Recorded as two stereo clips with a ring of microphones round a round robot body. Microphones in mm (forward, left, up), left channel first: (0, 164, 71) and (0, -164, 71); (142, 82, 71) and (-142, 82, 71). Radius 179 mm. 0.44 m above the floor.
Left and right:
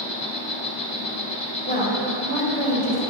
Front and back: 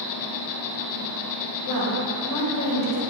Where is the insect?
15° left, 0.7 m.